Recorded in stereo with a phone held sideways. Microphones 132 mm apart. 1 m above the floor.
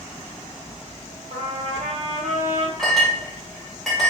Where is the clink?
Centre (ahead or behind), 1.2 m.